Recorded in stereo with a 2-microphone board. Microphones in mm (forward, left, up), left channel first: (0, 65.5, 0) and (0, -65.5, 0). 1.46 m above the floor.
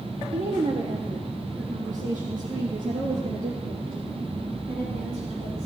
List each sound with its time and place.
0.3 s a woman speaking: 45° right (ahead or behind), 1.0 m; by 5.7 s 90° right, 3.5 m